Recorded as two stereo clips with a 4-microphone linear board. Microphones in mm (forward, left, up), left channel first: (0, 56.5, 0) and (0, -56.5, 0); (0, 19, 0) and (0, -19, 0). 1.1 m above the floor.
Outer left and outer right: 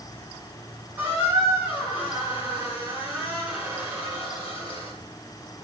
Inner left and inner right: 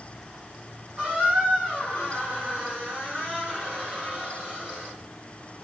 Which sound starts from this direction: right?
A squeak, at 1.0 s.